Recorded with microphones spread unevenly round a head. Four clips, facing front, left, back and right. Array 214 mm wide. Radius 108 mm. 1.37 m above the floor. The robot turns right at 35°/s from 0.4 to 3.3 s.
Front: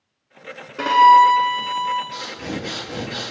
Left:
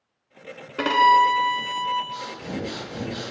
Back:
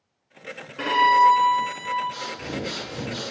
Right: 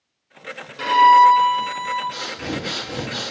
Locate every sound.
0.8 s a violin: 60° left, 1.4 m; by 2.0 s 105° left, 1.4 m
2.1 s breathing: 70° right, 4 m; by 3.3 s 30° right, 4 m